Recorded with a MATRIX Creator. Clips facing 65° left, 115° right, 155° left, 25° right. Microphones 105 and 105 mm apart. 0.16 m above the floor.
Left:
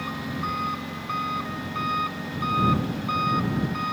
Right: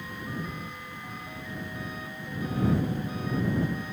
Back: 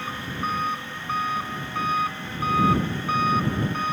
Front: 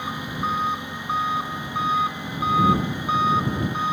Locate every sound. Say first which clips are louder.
0.0 s an engine running: left 6 dB, front 2 dB; 55° left